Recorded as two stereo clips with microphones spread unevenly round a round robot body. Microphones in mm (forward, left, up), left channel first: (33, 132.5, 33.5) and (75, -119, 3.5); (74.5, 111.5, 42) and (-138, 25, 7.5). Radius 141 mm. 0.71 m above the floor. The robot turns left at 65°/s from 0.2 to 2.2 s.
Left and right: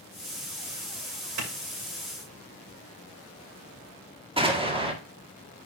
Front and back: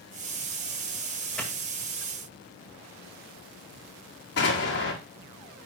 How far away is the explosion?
About 1.7 m.